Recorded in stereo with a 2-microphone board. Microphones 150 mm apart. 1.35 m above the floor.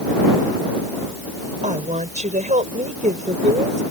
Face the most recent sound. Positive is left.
turn(degrees=-55)  # may be behind; listen again after turning